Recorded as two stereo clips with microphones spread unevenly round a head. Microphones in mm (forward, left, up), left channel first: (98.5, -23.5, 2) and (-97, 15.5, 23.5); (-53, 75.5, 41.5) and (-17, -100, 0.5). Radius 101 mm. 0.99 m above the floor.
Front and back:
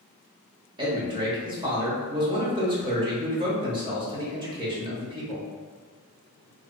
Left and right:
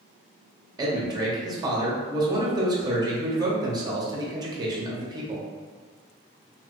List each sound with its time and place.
0.8 s a man speaking: 125° right, 0.9 m